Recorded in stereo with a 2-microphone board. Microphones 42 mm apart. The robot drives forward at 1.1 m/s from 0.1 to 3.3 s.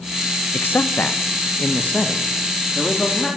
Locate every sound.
0.5 s a man speaking: 60° left (ahead or behind), 1.1 m; by 3.3 s 15° left (ahead or behind), 3.5 m